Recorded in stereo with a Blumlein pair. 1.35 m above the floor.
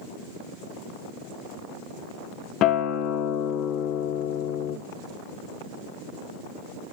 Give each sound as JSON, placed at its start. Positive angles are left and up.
{"t": 2.6, "sound": "a guitar", "azimuth_deg": 35, "distance_m": 0.8}